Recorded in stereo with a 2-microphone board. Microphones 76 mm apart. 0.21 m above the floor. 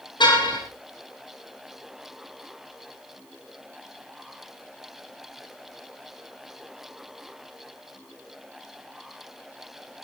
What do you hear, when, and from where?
0.2 s a car horn: 80° left, 7.5 m